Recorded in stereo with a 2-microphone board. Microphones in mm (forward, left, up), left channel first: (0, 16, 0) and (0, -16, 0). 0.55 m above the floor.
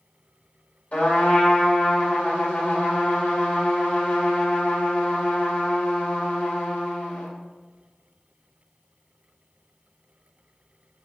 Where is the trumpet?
55° left (ahead or behind), 2.5 m.